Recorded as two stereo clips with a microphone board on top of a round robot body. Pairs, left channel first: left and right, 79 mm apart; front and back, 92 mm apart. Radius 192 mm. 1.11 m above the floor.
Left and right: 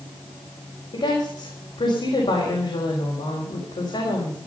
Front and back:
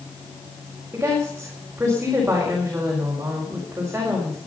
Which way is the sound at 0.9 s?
110° left.